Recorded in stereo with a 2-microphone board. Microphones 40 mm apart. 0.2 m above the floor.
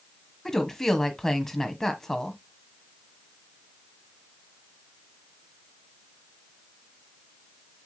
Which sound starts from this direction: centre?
A woman speaking, at 0.5 s.